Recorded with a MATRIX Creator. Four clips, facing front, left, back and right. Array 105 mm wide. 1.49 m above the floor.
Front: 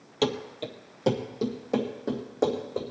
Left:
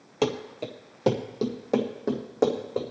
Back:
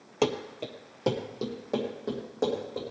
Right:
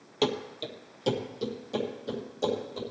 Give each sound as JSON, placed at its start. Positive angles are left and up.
{"t": 0.2, "sound": "running footsteps", "azimuth_deg": 140, "distance_m": 1.6}